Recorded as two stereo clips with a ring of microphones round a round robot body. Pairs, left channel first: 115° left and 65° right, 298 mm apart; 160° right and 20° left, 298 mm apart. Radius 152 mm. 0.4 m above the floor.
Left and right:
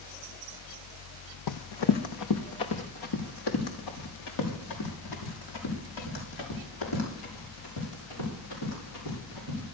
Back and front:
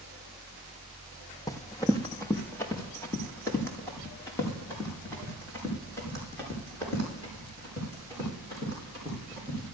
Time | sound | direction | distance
1.5 | running footsteps | 125° left | 0.9 m